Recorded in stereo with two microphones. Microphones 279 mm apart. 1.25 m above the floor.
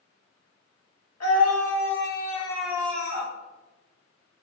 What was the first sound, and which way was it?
A scream, 65° left (ahead or behind).